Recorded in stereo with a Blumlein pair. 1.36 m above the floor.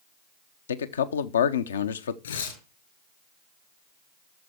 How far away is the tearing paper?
About 3.5 m.